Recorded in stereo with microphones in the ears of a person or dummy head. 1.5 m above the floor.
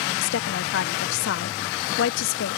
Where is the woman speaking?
75° left (ahead or behind).